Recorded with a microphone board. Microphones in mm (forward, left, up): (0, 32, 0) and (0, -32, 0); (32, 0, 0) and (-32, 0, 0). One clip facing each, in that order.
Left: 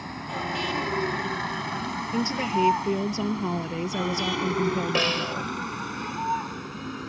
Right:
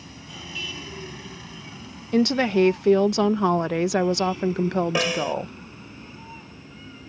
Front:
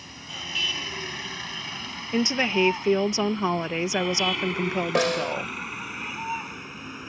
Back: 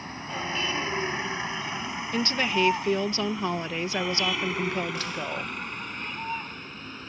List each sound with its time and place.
0.0 s a vehicle: 125° left; by 7.1 s 80° left
2.1 s a woman speaking: 75° right
5.0 s a snare drum: 10° right